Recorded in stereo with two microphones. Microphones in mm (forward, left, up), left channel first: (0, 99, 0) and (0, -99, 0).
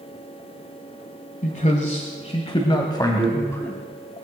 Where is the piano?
I don't hear a piano.